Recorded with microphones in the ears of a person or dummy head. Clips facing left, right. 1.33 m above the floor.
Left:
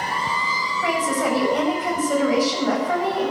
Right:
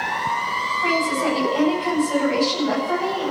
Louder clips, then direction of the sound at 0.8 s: Even; 50° left (ahead or behind).